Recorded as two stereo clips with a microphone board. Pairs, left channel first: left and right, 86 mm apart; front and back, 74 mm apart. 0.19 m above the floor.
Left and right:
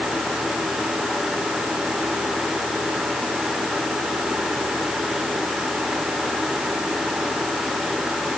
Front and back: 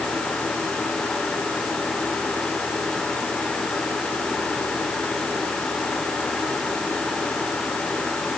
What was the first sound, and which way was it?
Only background noise.